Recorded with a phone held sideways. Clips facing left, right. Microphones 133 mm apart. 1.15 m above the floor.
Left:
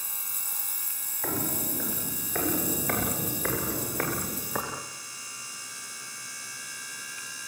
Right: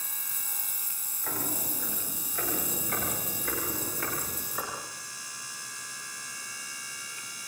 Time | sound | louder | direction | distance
1.2 | footsteps | left 4 dB | 70° left (ahead or behind) | 9 m